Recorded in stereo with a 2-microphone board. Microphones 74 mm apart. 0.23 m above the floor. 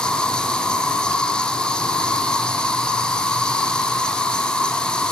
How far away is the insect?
About 1.5 m.